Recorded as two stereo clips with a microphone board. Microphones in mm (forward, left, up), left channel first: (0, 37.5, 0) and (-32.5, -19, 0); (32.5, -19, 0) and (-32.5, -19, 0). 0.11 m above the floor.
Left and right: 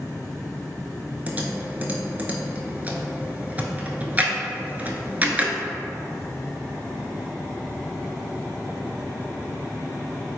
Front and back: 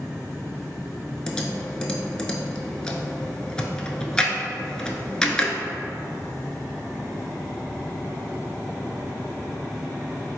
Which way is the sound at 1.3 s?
70° right.